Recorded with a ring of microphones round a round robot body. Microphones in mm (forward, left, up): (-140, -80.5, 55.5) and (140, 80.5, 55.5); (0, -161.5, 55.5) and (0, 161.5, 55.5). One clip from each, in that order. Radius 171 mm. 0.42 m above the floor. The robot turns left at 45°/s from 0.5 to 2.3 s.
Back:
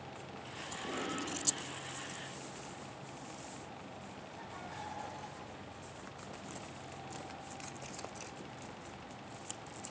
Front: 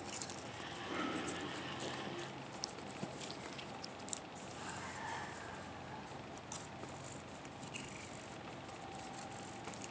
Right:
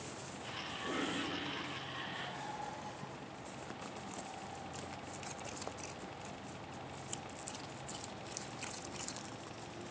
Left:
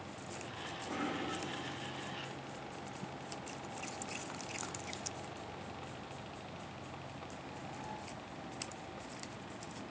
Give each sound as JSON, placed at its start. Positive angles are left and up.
{"t": 0.8, "sound": "a cough", "azimuth_deg": -100, "distance_m": 2.5}